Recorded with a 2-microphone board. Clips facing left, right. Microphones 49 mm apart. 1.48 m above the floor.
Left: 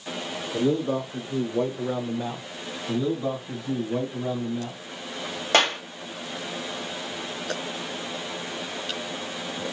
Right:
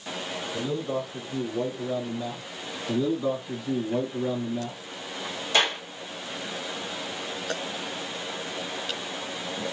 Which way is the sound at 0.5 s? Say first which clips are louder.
Left 6 dB; 50° left (ahead or behind).